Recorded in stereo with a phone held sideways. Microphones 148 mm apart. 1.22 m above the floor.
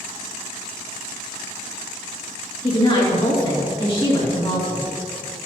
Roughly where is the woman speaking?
Left.